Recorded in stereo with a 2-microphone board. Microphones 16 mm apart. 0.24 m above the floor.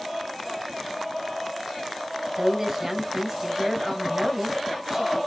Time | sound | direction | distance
2.4 | a woman speaking | 25° right (ahead or behind) | 1.0 m